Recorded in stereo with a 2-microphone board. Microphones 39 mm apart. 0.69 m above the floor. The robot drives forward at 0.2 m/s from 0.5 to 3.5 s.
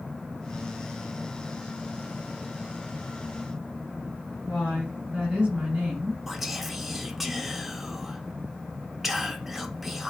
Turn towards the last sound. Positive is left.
turn(degrees=-5)  # may be behind; listen again after turning